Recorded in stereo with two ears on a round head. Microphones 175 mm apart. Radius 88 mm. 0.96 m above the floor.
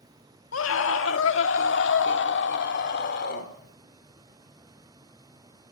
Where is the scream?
75° left (ahead or behind), 2 m; by 3.5 s 55° left (ahead or behind), 3.5 m.